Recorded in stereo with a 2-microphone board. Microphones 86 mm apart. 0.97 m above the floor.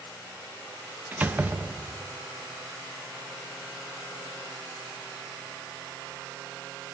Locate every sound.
1.1 s a door slam: 20° right (ahead or behind), 0.7 m